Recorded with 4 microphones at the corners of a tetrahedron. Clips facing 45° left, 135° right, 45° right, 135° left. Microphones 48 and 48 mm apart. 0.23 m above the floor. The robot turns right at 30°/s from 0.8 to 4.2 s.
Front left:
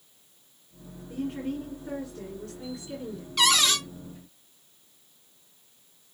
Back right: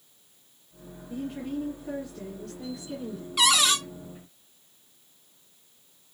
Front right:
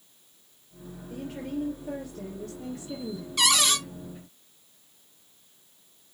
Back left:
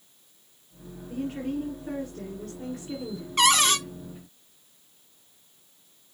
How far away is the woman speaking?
About 2.5 m.